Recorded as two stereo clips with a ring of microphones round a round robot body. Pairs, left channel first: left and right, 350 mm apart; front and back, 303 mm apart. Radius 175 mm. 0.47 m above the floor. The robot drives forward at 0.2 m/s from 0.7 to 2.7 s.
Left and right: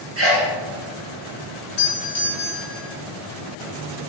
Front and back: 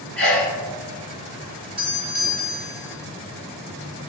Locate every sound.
0.2 s a sneeze: 85° right, 1.2 m
1.8 s a doorbell: 95° left, 1.3 m; by 2.9 s 115° left, 1.4 m